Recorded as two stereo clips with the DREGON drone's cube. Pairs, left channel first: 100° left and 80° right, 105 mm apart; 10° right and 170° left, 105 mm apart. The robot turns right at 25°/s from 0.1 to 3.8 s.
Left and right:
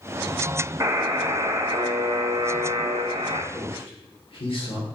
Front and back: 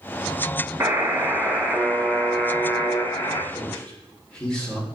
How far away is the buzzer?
About 1.4 m.